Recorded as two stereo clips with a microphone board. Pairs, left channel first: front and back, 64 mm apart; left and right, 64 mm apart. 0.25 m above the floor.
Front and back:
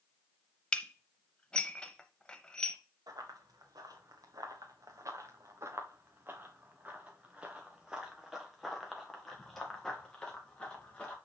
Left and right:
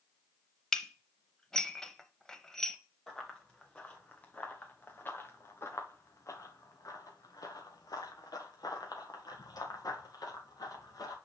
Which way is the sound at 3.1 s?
170° left.